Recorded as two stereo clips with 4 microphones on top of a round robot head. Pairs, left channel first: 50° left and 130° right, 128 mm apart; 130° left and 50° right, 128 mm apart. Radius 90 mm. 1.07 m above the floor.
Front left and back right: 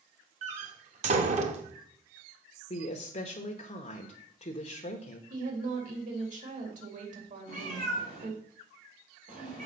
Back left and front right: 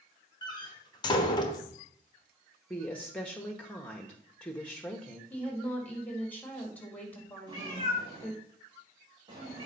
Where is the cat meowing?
105° right, 3 m.